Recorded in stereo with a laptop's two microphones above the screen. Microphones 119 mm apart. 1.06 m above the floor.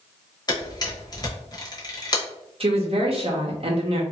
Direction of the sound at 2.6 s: 55° right (ahead or behind).